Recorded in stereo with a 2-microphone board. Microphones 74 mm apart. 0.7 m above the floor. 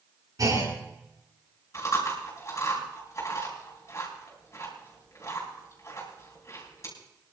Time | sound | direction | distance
0.4 | a clunk | 50° right (ahead or behind) | 8 m
1.7 | chewing | 40° left (ahead or behind) | 6 m